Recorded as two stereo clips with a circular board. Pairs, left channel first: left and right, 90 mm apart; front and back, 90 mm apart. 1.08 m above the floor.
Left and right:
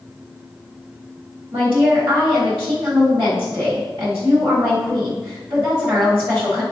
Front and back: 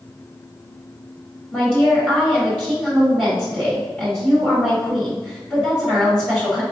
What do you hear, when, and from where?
1.5 s a woman speaking: 75° right, 1.4 m